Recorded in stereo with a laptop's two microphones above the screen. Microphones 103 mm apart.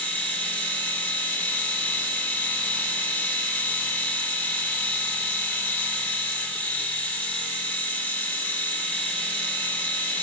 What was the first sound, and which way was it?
A machine running, 15° left (ahead or behind).